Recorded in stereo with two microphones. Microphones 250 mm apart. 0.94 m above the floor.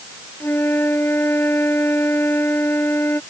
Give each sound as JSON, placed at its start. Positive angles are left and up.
{"t": 0.4, "sound": "a flute", "side_deg": 10}